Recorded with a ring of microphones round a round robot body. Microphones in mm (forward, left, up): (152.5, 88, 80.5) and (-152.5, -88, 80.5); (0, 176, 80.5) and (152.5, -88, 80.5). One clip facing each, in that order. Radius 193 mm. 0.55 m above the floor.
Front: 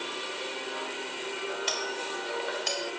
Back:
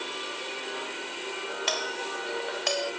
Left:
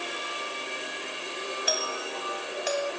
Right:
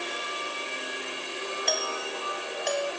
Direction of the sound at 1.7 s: 155° right.